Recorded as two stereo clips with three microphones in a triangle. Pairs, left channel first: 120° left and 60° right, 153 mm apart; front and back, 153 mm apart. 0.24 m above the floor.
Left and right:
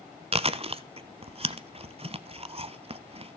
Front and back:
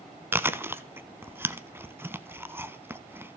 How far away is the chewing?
About 0.7 m.